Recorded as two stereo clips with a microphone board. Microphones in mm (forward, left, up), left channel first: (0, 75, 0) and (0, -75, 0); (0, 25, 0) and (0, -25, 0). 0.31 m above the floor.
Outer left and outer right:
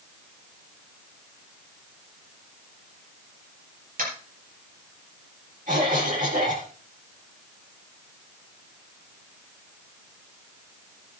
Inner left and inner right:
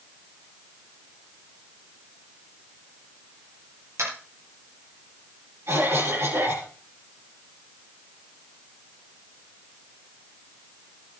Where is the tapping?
70° right (ahead or behind), 7 m.